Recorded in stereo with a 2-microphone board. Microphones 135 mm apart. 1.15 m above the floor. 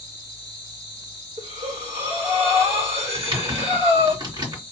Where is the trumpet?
No trumpet in this recording.